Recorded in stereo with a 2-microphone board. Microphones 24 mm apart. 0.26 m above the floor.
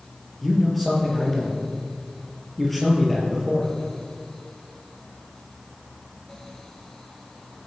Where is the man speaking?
5° left (ahead or behind), 5 m.